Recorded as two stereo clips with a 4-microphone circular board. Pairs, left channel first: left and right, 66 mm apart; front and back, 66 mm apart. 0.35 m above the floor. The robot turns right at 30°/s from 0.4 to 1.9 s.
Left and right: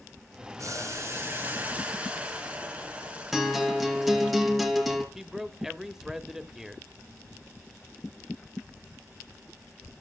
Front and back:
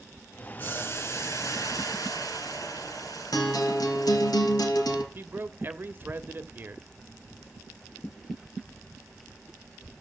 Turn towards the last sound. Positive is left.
turn(degrees=-170)